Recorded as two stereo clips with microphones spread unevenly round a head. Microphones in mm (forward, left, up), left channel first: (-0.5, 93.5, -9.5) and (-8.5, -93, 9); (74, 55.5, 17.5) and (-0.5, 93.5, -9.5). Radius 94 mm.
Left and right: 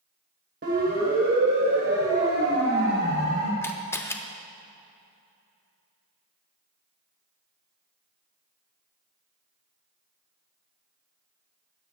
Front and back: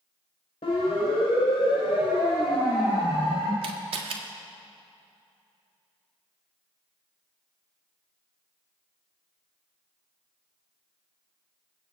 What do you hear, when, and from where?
0.6 s a siren: 55° right, 4 m; by 3.5 s 70° right, 6 m
3.6 s a camera shutter: 165° left, 1.2 m